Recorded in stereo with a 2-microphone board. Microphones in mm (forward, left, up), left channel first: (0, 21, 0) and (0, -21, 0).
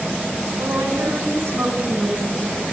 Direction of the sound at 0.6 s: 60° right (ahead or behind).